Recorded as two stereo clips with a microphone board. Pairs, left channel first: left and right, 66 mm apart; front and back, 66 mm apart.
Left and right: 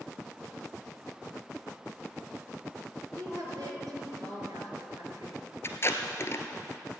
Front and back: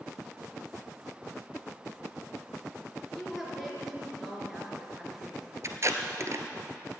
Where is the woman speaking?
95° right, 4 m.